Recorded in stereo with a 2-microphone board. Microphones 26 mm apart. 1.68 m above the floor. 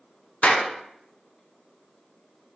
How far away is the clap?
About 1.0 m.